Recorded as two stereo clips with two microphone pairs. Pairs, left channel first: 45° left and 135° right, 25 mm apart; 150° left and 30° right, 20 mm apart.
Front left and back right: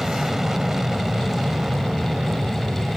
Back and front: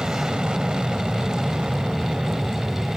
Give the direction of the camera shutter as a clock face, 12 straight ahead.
No camera shutter in this recording.